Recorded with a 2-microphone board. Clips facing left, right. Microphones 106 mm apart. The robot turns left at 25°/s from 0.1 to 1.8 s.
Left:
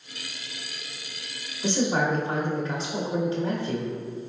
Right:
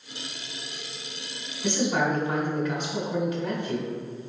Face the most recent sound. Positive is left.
turn(degrees=30)  # may be behind; listen again after turning